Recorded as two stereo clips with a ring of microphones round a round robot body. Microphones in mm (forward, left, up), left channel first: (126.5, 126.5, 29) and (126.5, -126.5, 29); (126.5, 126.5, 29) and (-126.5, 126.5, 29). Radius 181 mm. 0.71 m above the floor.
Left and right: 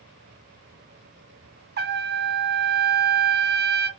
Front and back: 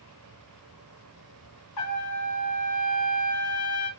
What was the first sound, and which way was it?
A trumpet, 40° right.